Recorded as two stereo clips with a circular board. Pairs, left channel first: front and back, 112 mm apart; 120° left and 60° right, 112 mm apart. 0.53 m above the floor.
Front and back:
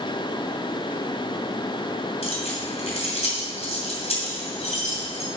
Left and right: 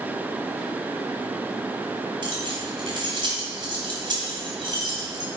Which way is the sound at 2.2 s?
20° right.